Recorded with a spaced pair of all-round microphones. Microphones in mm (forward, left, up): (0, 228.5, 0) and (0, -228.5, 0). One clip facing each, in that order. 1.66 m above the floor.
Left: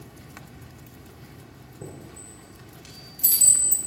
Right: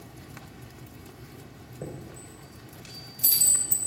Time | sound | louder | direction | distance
1.8 | a chime | right 2 dB | 15° left (ahead or behind) | 3 m